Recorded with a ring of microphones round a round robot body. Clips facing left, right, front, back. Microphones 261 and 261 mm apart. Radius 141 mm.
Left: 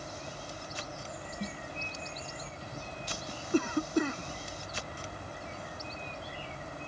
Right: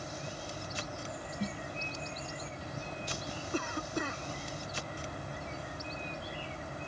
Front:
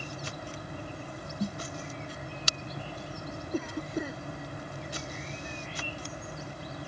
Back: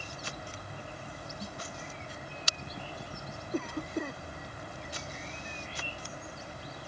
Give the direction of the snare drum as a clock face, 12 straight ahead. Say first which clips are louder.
Right 3 dB, front 12 dB; 12 o'clock.